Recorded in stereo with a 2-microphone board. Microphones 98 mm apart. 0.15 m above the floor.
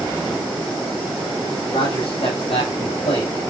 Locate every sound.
1.7 s a man speaking: 65° left (ahead or behind), 7 m; by 3.5 s 75° left (ahead or behind), 6.5 m